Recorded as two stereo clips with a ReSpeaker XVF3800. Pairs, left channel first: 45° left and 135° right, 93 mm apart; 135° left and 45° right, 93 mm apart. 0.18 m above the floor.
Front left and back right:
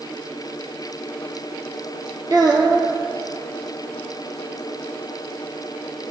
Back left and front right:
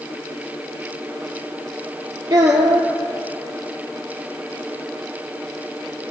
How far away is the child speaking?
About 3 m.